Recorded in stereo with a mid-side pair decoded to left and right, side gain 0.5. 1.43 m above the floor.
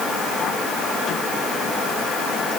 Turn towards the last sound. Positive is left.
No sound to turn to.